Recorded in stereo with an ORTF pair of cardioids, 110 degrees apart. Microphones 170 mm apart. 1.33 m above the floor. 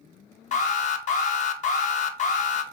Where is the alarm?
45° left, 0.7 m.